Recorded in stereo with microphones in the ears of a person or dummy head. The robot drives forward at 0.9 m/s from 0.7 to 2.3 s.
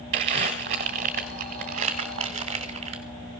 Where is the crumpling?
35° right (ahead or behind), 1.7 m; by 3.0 s 30° right (ahead or behind), 2 m.